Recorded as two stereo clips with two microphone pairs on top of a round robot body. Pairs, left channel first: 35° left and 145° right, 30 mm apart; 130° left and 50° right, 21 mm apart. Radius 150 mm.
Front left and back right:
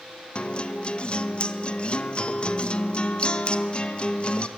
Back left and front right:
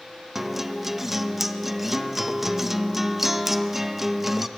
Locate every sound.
0.3 s a guitar: 5° left, 1.2 m